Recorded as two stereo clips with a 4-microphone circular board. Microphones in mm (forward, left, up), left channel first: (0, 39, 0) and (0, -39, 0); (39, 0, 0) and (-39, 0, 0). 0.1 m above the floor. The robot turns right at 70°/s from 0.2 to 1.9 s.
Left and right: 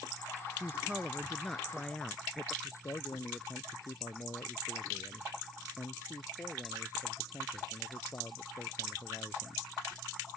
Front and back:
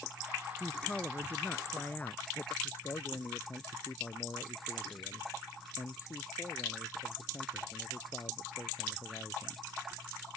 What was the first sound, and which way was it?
A man speaking, 70° right.